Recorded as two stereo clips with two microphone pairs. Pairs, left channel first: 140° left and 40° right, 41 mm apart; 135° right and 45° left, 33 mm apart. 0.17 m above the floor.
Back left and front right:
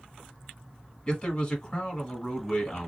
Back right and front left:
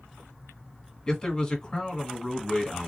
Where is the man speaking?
175° left, 1.4 m.